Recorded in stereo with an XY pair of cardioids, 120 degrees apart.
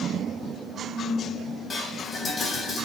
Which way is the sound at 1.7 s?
30° left.